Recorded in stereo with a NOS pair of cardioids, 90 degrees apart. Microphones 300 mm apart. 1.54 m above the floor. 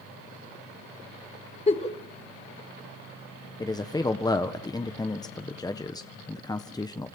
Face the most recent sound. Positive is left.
turn(degrees=10)